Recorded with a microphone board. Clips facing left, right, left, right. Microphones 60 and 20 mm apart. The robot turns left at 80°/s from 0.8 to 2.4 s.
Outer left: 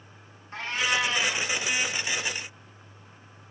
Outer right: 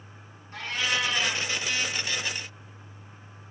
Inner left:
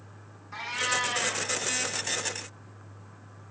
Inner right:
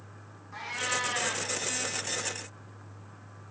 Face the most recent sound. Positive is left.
turn(degrees=-80)